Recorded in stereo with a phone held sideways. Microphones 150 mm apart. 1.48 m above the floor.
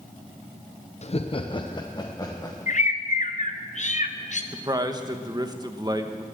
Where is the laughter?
45° left (ahead or behind), 0.5 m; by 2.9 s 20° left (ahead or behind), 1.6 m.